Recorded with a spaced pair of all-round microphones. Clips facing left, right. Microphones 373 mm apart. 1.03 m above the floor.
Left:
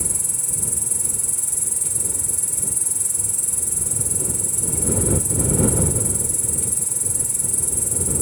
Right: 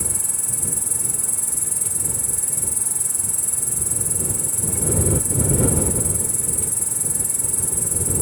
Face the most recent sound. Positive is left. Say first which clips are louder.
# even
turn(degrees=-70)  # may be behind; listen again after turning